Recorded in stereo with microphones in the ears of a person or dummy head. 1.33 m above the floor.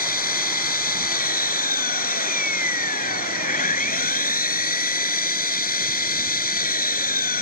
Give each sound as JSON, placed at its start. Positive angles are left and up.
{"t": 0.0, "sound": "an engine running", "side_deg": 45}